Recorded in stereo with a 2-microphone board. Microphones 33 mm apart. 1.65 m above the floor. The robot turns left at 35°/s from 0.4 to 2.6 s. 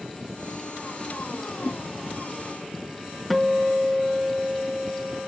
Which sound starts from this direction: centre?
A guitar, at 3.3 s.